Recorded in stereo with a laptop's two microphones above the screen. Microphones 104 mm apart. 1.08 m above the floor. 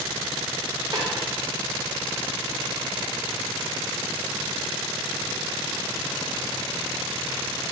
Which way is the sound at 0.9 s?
45° right (ahead or behind).